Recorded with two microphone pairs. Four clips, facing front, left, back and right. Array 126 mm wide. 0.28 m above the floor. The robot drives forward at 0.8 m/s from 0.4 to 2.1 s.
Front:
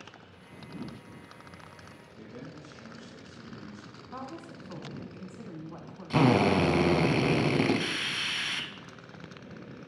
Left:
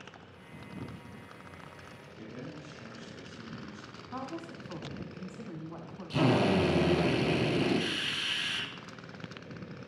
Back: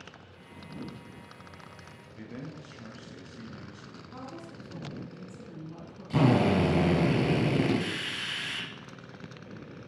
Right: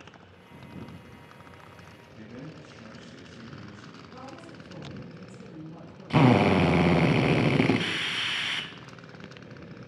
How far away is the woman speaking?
About 2.5 m.